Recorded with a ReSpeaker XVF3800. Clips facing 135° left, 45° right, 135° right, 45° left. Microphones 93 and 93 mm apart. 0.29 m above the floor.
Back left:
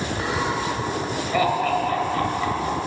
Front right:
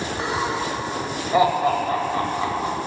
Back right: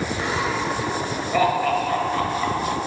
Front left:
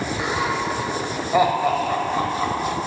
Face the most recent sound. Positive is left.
turn(degrees=-10)